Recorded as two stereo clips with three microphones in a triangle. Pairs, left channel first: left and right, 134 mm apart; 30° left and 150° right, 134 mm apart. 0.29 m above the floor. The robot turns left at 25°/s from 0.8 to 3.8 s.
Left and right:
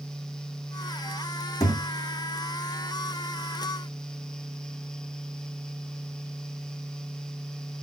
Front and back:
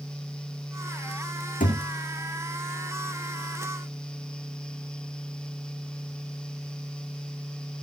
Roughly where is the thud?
Ahead left.